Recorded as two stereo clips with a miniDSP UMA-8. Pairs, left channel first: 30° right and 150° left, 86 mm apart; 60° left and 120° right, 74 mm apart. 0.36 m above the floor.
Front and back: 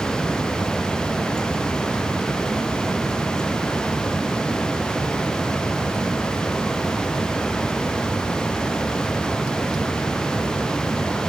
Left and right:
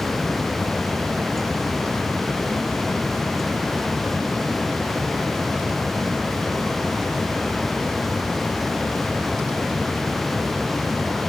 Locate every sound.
Only background noise.